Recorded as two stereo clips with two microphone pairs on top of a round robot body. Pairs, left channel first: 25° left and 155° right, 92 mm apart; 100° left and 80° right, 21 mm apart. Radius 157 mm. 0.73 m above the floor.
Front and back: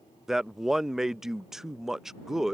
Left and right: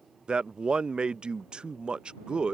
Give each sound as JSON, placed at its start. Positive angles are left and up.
{"t": 0.3, "sound": "a man speaking", "azimuth_deg": -60}